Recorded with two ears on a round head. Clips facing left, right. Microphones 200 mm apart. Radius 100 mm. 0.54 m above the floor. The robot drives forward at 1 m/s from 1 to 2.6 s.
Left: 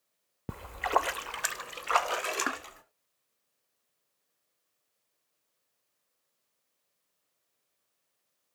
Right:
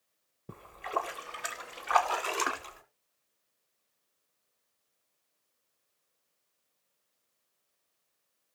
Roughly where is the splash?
Left.